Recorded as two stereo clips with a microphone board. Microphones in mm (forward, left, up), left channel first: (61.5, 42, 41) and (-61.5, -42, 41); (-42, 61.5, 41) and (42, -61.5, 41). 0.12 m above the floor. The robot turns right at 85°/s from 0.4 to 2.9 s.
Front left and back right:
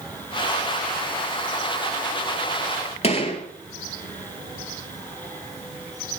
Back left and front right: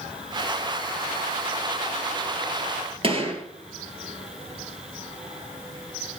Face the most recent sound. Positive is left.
turn(degrees=-10)